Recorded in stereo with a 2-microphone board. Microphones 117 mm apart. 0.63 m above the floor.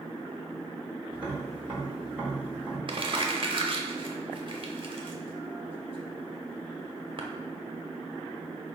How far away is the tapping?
About 1.5 m.